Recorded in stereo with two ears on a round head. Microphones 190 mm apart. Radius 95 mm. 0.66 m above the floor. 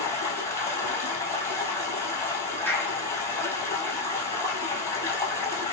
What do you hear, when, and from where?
0.0 s running water: 15° left (ahead or behind), 1.6 m
2.7 s a clap: 10° left (ahead or behind), 1.3 m